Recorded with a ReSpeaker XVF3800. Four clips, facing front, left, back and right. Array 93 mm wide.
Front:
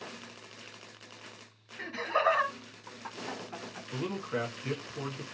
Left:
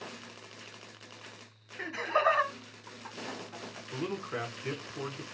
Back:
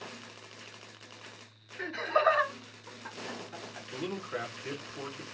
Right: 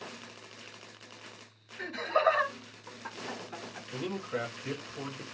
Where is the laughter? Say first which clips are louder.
Right 1 dB, back 2 dB; 80° left, 1.1 m; by 3.8 s 35° right, 1.3 m.